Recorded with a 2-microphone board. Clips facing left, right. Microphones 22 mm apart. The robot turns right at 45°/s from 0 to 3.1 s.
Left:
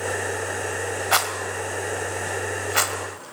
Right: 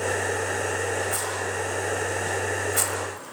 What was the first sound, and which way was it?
A rattle, 60° left (ahead or behind).